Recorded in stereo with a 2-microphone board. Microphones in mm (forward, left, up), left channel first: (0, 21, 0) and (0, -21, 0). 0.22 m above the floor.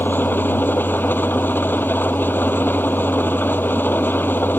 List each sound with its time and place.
0.0 s an engine running: 55° left (ahead or behind)